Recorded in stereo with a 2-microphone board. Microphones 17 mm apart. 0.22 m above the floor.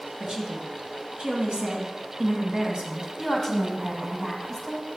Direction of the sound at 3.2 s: 20° left (ahead or behind).